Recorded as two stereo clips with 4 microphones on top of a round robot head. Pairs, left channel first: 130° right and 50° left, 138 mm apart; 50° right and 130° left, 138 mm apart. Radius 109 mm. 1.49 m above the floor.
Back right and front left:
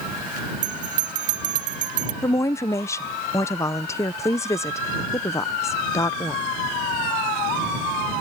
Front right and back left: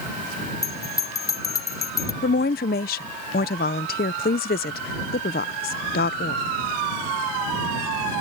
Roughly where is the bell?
Ahead.